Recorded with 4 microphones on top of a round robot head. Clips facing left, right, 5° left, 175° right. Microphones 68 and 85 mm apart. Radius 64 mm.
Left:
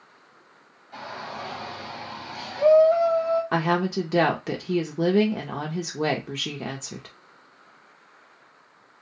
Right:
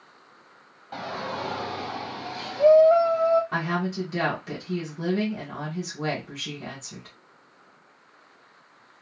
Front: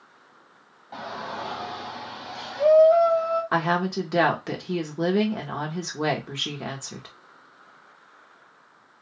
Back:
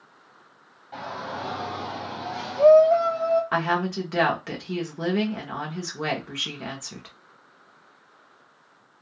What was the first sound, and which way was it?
A shout, 75° right.